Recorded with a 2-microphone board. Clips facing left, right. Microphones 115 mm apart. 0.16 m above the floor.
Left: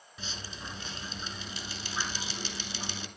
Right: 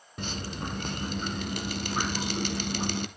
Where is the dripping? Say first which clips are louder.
Right 9 dB; 55° right (ahead or behind), 0.7 m.